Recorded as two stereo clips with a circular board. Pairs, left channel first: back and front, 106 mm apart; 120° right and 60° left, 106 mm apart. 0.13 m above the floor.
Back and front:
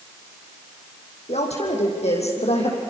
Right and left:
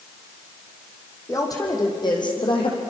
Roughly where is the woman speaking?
Behind.